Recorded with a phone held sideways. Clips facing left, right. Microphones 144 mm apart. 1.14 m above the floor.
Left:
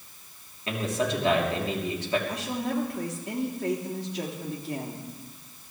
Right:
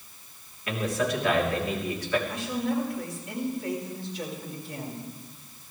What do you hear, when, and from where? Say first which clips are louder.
0.7 s a man speaking: even; 25° left (ahead or behind), 3 m
2.3 s a woman speaking: right 1 dB; 75° left (ahead or behind), 3 m